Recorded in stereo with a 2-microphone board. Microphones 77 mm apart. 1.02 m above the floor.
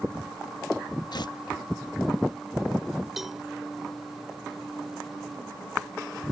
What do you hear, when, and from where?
1.1 s tearing paper: 65° left (ahead or behind)
3.2 s a cowbell: 5° right (ahead or behind)